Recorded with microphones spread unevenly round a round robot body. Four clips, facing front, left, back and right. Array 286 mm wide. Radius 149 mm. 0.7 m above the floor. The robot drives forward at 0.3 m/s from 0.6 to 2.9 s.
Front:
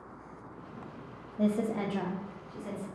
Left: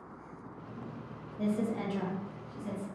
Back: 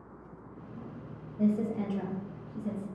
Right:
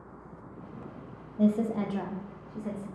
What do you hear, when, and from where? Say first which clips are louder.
1.4 s a woman speaking: right 6 dB, even; 55° right, 0.5 m; by 2.9 s 150° right, 0.6 m